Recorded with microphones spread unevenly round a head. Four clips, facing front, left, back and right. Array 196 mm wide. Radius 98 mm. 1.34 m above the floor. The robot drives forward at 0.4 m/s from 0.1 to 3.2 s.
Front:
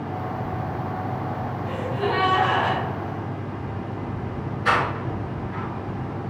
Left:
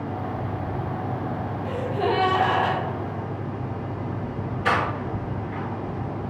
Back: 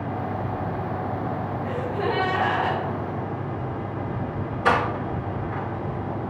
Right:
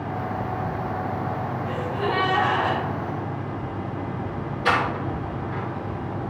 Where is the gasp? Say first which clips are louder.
Left 3 dB, front 1 dB; 110° left, 1.4 m; by 2.8 s 125° left, 1.7 m.